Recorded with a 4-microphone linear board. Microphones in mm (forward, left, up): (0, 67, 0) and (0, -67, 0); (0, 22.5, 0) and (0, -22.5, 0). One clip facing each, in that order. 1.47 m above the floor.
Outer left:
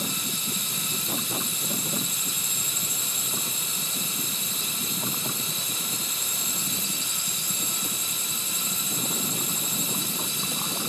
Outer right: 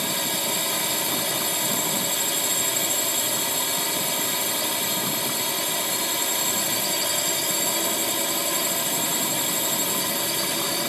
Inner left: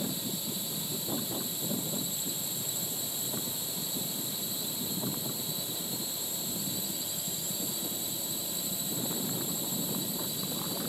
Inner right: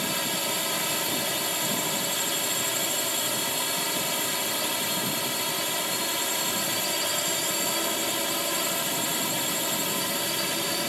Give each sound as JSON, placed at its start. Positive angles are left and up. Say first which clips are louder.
{"t": 0.0, "sound": "a drone", "louder": "outer right 6 dB, inner right 8 dB", "side_deg": -80}